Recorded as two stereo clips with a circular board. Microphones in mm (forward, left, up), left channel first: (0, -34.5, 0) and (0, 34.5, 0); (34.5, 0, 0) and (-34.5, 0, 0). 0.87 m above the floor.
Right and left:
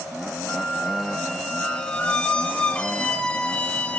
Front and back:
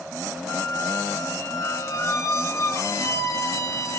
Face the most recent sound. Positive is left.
turn(degrees=-25)